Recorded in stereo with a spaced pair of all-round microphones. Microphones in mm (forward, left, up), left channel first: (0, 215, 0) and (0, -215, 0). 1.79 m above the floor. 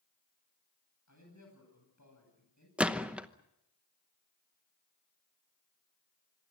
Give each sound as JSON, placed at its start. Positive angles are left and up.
{"t": 1.1, "sound": "a man speaking", "side_deg": 40, "distance_m": 10.0}
{"t": 2.8, "sound": "a gunshot", "side_deg": -5, "distance_m": 0.9}